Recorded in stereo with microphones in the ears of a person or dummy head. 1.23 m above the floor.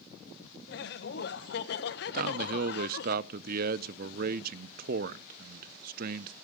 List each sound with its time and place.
0.7 s laughter: 60° left (ahead or behind), 1.1 m
2.1 s a man speaking: 45° right (ahead or behind), 0.5 m